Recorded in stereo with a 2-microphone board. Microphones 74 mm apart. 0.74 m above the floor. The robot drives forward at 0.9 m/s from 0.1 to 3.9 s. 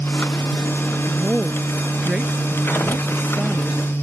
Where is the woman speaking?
10° right (ahead or behind).